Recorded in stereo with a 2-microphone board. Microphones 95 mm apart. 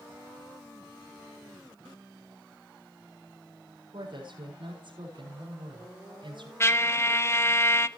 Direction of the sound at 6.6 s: 30° left (ahead or behind).